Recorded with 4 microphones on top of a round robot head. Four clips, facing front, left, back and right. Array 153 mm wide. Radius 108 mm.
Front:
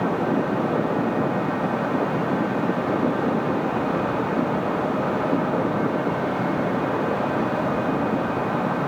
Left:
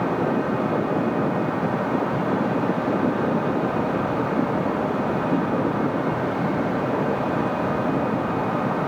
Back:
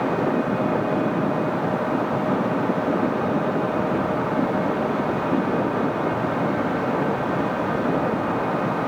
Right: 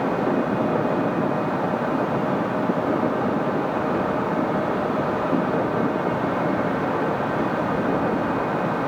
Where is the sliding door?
No sliding door in this recording.